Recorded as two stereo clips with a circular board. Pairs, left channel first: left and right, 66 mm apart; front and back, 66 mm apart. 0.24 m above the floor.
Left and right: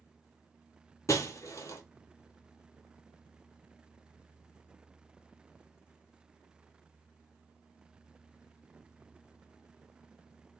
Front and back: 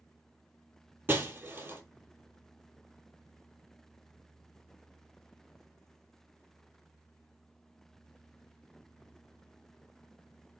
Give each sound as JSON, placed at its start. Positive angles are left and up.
{"t": 1.1, "sound": "breaking glass", "azimuth_deg": 125, "distance_m": 0.6}